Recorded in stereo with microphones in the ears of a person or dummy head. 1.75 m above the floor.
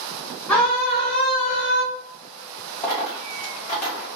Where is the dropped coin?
30° left (ahead or behind), 1.6 m.